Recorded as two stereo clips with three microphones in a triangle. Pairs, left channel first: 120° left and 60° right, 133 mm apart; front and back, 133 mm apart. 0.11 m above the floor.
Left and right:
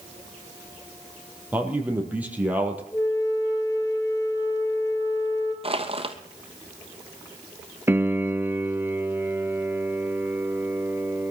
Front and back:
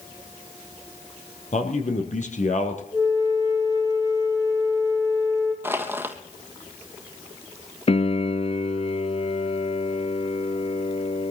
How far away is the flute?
About 3 m.